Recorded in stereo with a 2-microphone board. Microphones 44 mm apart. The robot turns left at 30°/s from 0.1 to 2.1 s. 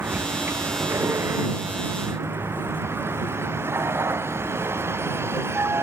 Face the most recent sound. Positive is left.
turn(degrees=-110)